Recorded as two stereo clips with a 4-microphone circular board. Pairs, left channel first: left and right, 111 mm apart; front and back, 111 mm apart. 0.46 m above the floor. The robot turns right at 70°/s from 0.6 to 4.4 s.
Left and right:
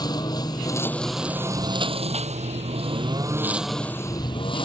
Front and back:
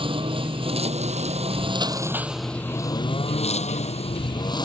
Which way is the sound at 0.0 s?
145° left.